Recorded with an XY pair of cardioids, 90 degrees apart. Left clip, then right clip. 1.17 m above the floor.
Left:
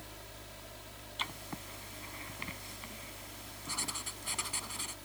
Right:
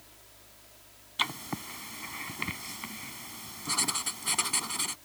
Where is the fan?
70° left.